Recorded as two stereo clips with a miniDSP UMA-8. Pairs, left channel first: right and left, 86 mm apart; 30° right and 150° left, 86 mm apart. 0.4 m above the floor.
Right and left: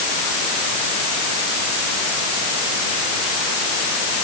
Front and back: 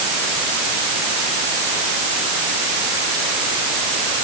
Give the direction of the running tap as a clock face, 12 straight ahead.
I don't hear a running tap.